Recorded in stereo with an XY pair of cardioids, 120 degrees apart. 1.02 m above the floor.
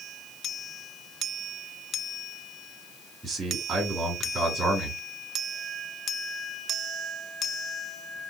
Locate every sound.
3.2 s a man speaking: 20° right, 3 m